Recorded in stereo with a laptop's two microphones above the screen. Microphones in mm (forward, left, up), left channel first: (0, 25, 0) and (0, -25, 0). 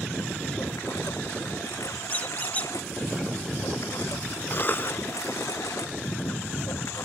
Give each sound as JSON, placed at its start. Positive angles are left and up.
{"t": 0.0, "sound": "a lawn mower", "side_deg": 80}
{"t": 2.1, "sound": "a squeak", "side_deg": 30}
{"t": 4.5, "sound": "a cough", "side_deg": 40}